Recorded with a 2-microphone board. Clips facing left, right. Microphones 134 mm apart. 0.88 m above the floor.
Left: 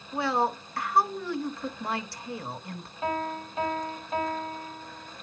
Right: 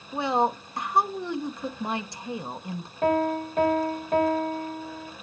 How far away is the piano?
About 1.9 m.